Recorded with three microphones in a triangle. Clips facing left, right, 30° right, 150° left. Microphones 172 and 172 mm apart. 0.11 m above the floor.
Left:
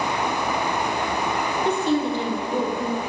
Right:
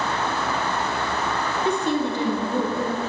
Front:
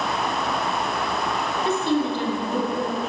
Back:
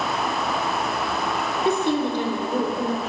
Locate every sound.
1.6 s a woman speaking: 150° right, 1.5 m